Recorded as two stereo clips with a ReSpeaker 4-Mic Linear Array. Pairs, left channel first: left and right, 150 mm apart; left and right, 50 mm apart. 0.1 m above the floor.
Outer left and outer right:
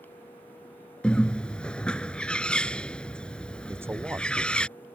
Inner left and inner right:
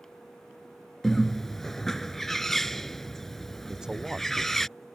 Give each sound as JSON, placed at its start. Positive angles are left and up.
{"t": 1.0, "sound": "a bird", "side_deg": 5}
{"t": 3.7, "sound": "a man speaking", "side_deg": -15}